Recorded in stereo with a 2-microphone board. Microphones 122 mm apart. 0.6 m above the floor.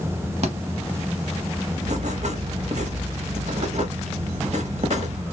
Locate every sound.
0.4 s a thud: 65° right (ahead or behind), 1.0 m
1.8 s writing: 70° right (ahead or behind), 0.8 m